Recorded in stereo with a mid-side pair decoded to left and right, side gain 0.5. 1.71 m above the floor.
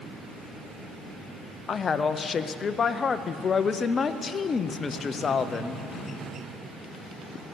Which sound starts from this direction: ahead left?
A woman speaking, at 1.7 s.